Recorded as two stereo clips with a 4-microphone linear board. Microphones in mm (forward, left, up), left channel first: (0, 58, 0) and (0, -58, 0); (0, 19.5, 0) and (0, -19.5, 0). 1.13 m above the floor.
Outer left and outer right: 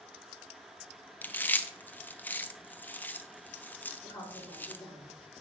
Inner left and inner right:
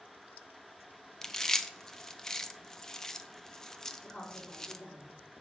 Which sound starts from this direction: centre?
Chewing, at 1.2 s.